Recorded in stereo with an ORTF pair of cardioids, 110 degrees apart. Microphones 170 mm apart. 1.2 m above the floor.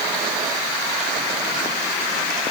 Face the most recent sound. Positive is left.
No sound to turn to.